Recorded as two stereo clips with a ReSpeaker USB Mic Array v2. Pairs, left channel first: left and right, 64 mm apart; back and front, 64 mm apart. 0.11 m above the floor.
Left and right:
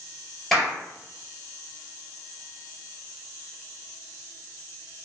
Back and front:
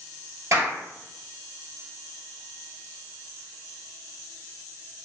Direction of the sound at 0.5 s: 5° left.